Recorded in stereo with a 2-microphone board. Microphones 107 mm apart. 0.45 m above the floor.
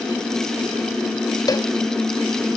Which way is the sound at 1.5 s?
35° left (ahead or behind).